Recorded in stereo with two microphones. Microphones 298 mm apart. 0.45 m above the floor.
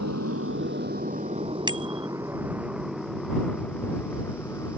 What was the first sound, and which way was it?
A motorcycle, 60° right (ahead or behind).